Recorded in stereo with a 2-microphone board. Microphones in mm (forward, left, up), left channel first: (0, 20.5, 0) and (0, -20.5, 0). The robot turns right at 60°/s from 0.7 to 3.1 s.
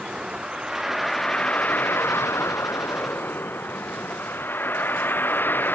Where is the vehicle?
20° right; by 5.8 s 125° left.